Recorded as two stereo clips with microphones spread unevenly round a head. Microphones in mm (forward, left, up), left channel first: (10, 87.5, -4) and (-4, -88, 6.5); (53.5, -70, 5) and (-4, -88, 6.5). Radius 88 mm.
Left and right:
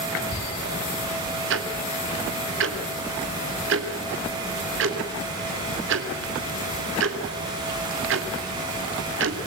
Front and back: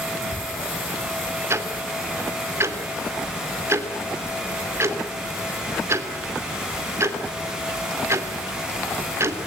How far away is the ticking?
About 3 m.